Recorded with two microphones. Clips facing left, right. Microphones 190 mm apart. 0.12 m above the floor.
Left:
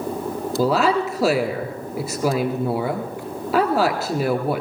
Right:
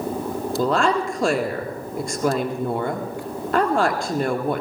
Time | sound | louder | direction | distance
0.6 | a woman speaking | left 2 dB | 5° left (ahead or behind) | 1.7 m